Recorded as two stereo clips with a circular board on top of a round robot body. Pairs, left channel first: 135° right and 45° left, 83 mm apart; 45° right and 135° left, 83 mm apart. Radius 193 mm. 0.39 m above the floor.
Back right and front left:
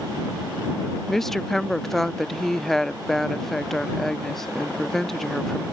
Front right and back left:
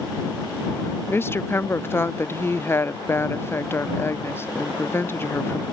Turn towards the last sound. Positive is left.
turn(degrees=-55)